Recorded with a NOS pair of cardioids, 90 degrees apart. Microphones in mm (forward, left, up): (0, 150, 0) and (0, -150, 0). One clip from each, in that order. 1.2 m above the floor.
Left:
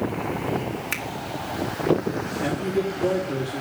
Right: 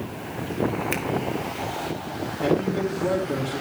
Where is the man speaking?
20° right, 3.5 m.